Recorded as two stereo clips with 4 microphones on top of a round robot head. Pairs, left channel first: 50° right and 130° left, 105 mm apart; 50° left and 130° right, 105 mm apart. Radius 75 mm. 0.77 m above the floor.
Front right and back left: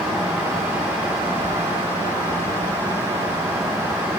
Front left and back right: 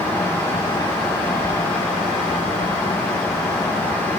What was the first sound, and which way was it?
Only background noise.